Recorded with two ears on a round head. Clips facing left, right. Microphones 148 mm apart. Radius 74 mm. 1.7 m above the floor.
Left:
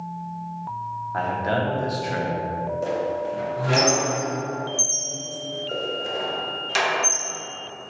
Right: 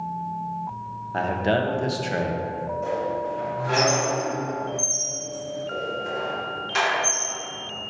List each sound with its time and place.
1.1 s a man speaking: 35° right (ahead or behind), 0.9 m
2.8 s a squeak: 40° left (ahead or behind), 1.2 m